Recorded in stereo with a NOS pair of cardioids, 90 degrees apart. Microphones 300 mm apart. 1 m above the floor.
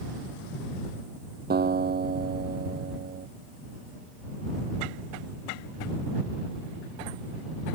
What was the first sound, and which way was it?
A guitar, 30° right.